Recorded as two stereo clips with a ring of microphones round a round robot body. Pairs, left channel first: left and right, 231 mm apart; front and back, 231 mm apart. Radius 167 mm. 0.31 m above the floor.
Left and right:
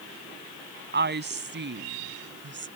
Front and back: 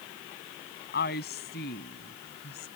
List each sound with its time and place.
0.9 s a woman speaking: 55° right